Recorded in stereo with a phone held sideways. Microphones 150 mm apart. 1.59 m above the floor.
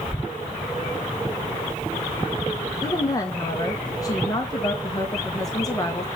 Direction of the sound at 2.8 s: 25° left (ahead or behind).